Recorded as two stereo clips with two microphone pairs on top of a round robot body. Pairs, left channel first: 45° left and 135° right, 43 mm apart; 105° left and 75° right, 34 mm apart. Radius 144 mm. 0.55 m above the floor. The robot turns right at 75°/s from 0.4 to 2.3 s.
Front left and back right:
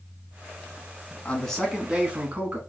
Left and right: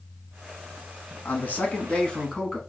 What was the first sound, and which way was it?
A man speaking, 90° left.